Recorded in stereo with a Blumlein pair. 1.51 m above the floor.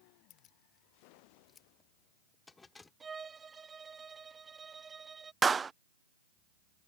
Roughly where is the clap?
Ahead.